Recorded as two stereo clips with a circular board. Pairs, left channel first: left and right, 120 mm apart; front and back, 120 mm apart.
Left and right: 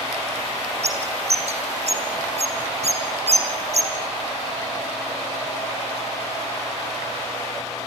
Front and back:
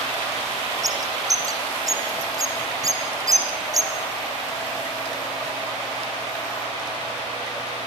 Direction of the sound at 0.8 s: 120° right.